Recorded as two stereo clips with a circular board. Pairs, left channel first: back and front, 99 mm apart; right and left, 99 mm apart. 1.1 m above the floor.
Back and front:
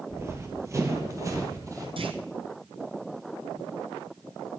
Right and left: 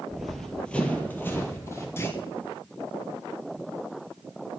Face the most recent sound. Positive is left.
turn(degrees=-25)